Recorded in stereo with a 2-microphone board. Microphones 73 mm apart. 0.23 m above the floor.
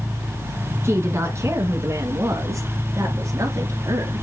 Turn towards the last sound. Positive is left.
turn(degrees=-50)  # may be behind; listen again after turning